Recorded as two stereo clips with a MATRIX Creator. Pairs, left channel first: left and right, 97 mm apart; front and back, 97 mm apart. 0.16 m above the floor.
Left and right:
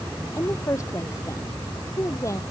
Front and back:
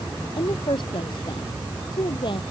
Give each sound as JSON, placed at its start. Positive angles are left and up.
{"t": 0.4, "sound": "a woman speaking", "azimuth_deg": 35}